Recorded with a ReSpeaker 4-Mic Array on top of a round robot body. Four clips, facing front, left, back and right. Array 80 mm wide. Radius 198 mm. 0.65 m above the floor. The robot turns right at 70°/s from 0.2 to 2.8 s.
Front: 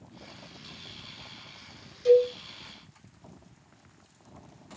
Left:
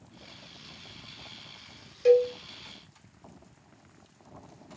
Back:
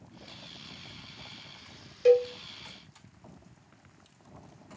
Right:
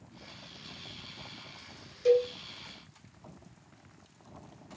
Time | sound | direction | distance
2.0 | a cowbell | 150° left | 1.8 m